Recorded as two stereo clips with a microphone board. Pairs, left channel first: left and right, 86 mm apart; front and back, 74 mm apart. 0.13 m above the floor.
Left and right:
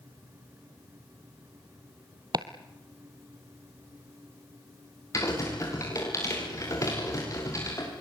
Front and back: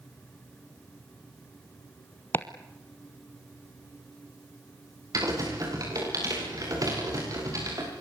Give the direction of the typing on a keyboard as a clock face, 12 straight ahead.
7 o'clock.